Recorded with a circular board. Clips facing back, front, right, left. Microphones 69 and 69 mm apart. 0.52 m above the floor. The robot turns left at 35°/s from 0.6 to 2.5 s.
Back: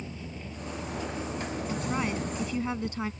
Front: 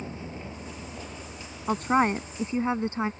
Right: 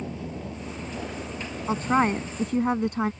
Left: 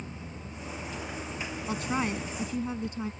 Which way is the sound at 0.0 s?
70° right.